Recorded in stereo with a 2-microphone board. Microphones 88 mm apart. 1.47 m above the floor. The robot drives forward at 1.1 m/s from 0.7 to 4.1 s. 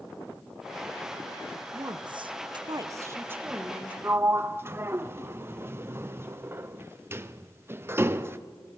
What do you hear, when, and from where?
1.7 s a woman speaking: 40° right (ahead or behind), 0.9 m; by 3.9 s 15° right (ahead or behind), 1.8 m
4.0 s a sliding door: 25° right (ahead or behind), 0.6 m; by 8.4 s 30° right (ahead or behind), 0.5 m